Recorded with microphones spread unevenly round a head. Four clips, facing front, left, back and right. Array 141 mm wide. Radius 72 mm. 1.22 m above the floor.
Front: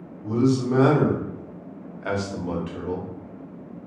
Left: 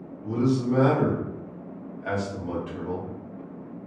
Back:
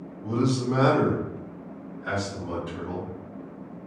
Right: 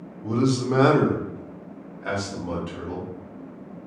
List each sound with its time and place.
0.2 s a man speaking: 100° right, 0.9 m; by 3.1 s 5° left, 1.2 m